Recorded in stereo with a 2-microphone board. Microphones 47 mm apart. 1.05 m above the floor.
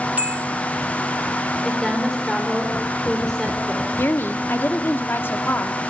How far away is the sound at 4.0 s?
About 1.7 m.